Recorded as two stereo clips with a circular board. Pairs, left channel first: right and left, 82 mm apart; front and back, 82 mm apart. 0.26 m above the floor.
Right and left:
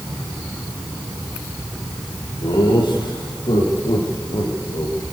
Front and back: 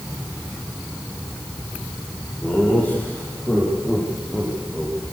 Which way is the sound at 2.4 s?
70° right.